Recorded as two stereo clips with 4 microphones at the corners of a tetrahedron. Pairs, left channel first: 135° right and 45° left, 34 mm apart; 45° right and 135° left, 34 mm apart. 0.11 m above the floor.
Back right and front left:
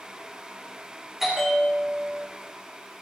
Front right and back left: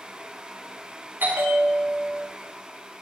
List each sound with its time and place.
1.2 s a bell: 125° left, 4 m